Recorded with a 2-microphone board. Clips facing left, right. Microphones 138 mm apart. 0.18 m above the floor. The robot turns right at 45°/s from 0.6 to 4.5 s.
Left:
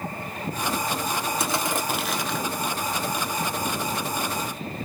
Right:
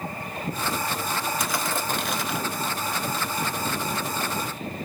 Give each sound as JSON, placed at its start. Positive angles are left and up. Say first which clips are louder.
{"t": 1.4, "sound": "crushing", "louder": "left 2 dB", "azimuth_deg": 145, "distance_m": 0.7}